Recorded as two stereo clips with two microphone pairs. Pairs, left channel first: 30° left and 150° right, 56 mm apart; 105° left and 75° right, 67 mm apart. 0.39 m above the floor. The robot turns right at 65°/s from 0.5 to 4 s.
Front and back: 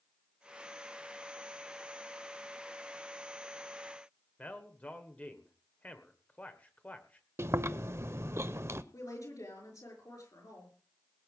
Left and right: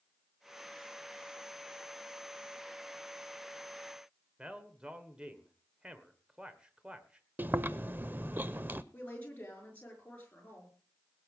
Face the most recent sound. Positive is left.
turn(degrees=40)